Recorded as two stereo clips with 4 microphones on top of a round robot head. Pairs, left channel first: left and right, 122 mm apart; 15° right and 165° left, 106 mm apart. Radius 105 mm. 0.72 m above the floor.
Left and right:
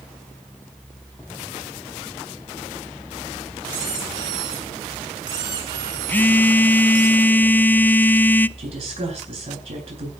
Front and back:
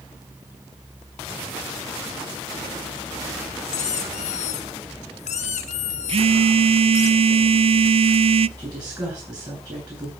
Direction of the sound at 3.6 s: 25° right.